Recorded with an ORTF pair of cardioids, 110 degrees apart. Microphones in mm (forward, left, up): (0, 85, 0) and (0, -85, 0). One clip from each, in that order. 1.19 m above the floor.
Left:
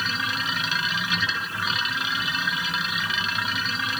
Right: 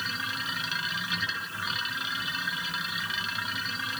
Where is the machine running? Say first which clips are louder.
Left 6 dB; 35° left.